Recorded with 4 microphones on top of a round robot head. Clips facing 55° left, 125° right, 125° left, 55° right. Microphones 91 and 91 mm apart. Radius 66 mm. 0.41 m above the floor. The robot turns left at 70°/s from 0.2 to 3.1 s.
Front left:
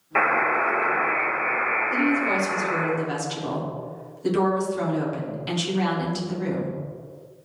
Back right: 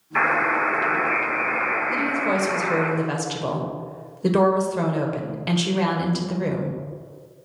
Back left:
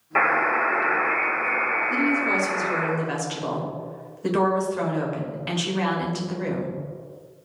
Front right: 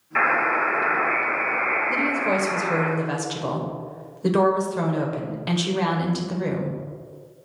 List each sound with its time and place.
0.1 s a buzzer: 80° left, 3 m; by 2.9 s 105° right, 3 m
1.9 s a woman speaking: 45° right, 1.5 m; by 6.8 s 130° right, 1.5 m